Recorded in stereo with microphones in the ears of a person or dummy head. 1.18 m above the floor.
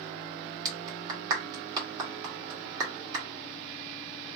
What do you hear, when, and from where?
0.7 s a clap: 25° right (ahead or behind), 1.3 m